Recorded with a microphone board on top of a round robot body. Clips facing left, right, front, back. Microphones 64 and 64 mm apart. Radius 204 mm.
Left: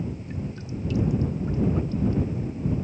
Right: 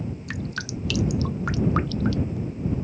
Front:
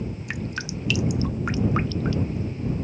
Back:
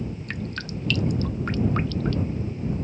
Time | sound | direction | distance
0.3 | dripping | 85° right | ?